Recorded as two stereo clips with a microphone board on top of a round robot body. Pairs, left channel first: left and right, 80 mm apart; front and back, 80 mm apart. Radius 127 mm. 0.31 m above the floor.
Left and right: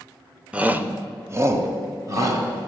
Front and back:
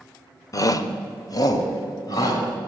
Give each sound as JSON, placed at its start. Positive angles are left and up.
{"t": 0.5, "sound": "a shout", "azimuth_deg": -20, "distance_m": 1.1}